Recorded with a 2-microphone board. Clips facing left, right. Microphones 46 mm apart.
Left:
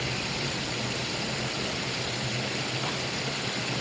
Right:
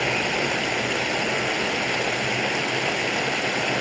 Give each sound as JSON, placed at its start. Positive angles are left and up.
{"t": 0.0, "sound": "running water", "side_deg": -60, "distance_m": 1.1}